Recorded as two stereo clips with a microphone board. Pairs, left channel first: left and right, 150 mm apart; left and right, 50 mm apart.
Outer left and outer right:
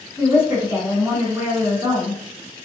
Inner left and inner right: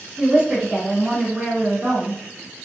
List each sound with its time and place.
0.2 s a woman speaking: 20° right (ahead or behind), 1.7 m